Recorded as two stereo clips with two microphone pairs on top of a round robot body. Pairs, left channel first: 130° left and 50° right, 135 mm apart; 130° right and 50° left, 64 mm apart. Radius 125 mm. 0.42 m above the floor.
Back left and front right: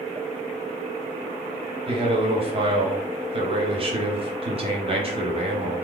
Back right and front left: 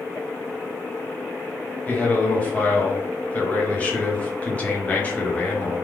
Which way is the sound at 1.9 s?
70° right.